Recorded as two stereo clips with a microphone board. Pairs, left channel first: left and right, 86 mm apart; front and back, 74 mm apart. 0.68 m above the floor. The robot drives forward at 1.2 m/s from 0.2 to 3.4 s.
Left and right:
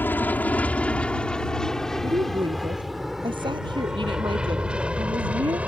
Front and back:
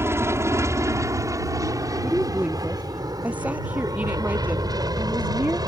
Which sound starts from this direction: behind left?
An aircraft, at 0.0 s.